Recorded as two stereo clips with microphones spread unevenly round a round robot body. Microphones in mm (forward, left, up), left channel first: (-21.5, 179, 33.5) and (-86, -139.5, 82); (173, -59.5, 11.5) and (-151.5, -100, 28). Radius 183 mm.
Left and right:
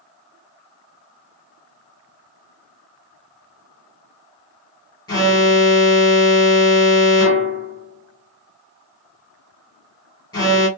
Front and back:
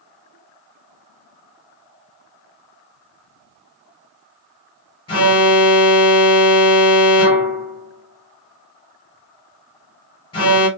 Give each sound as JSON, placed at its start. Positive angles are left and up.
{"t": 5.1, "sound": "an alarm", "azimuth_deg": 50, "distance_m": 1.6}